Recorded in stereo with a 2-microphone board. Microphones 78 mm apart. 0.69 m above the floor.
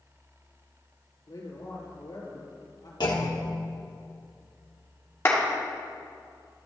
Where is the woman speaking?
60° left (ahead or behind), 2.5 m.